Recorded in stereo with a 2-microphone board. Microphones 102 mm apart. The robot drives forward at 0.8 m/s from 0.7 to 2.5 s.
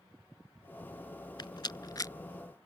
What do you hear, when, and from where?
1.4 s a rattle: 50° left (ahead or behind); by 2.1 s 35° left (ahead or behind)